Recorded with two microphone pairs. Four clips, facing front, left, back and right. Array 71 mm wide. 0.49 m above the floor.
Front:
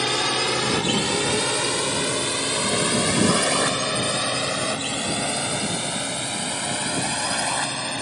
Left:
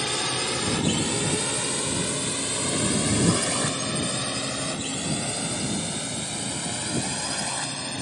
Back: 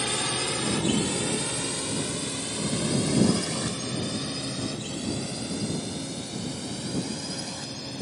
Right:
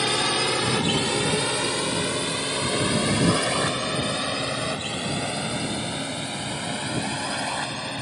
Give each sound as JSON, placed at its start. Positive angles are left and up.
{"t": 0.0, "sound": "a drone", "azimuth_deg": -40}